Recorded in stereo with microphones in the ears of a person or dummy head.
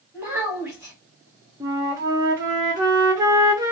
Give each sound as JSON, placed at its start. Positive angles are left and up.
{"t": 0.1, "sound": "a child speaking", "side_deg": -10, "distance_m": 0.9}
{"t": 1.6, "sound": "a flute", "side_deg": -15, "distance_m": 0.5}